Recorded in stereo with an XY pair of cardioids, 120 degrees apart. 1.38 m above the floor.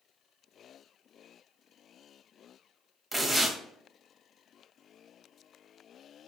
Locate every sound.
3.1 s tearing paper: straight ahead, 0.9 m